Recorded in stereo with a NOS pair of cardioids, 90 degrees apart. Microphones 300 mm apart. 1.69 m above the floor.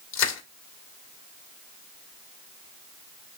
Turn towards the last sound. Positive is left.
turn(degrees=60)